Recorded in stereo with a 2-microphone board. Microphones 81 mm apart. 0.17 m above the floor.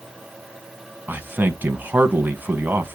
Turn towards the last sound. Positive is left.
turn(degrees=-25)  # may be behind; listen again after turning